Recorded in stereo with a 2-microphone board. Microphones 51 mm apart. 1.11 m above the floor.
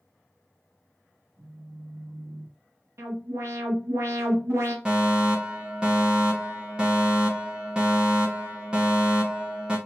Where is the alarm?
70° right (ahead or behind), 1.3 m.